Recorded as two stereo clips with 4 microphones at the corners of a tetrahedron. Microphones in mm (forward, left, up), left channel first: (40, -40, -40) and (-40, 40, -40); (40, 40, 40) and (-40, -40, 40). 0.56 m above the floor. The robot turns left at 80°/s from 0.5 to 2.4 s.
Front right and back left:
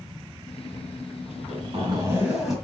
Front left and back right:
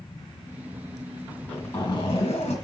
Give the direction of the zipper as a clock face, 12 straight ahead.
7 o'clock.